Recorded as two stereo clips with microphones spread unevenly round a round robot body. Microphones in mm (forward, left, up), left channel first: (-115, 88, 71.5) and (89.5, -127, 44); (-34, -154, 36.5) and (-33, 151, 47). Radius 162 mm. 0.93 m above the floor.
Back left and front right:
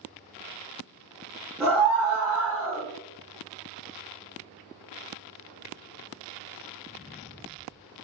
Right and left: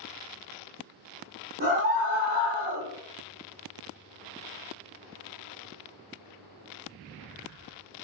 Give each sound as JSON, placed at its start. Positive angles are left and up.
{"t": 1.6, "sound": "a scream", "azimuth_deg": 40, "distance_m": 0.9}